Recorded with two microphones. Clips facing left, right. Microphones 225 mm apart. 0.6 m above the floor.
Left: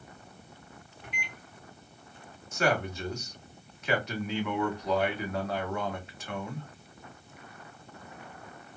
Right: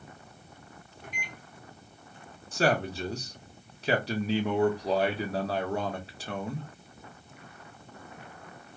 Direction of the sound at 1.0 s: 45° right (ahead or behind).